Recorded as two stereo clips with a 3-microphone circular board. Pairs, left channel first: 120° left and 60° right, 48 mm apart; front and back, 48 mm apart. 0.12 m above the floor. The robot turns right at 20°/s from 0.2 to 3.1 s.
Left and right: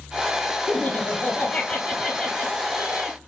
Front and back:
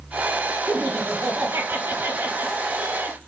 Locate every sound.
0.7 s laughter: 160° left, 2.5 m; by 3.2 s 155° right, 2.5 m